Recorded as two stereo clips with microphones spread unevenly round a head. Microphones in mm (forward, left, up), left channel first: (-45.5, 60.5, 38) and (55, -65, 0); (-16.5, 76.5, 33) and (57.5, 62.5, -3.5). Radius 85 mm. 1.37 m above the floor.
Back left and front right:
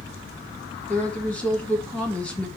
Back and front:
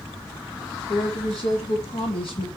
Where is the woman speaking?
150° right, 2.5 m.